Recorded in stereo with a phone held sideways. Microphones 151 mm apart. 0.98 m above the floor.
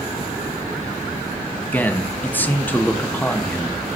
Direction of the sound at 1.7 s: 10° left (ahead or behind).